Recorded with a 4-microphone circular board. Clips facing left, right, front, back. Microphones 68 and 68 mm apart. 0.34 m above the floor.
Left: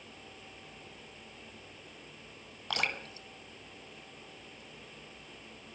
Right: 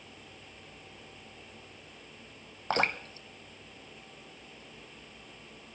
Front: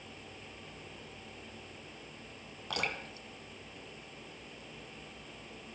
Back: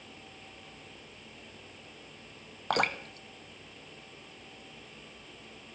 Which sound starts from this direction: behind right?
Dripping, at 2.7 s.